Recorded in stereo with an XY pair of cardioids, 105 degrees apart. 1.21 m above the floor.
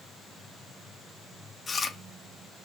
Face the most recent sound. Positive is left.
turn(degrees=30)